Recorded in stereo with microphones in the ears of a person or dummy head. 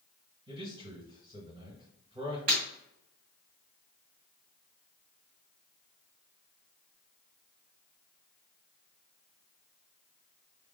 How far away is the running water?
I don't hear running water.